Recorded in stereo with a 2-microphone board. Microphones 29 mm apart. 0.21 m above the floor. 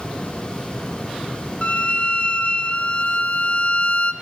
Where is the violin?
40° left (ahead or behind), 1.0 m.